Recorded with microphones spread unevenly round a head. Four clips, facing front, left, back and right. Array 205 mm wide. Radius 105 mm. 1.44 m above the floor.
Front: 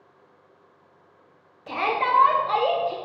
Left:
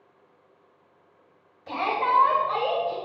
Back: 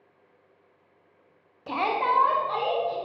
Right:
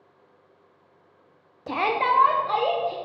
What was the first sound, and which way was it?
A shout, 100° right.